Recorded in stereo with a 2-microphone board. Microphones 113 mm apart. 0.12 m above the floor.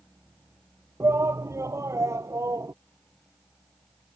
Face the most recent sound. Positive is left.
turn(degrees=-30)  # may be behind; listen again after turning